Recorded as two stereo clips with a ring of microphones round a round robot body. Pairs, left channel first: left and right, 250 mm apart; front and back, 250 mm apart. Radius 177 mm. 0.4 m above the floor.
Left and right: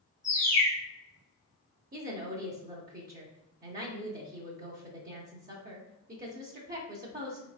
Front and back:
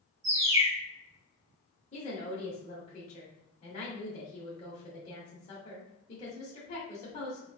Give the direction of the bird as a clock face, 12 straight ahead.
7 o'clock.